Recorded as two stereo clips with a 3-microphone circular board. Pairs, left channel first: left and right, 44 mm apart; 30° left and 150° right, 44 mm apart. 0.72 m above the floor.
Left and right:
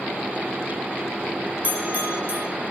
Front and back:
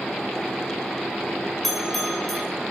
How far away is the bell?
About 3 m.